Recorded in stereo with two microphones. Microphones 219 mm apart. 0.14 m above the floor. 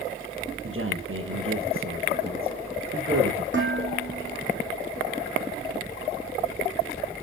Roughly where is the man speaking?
Right.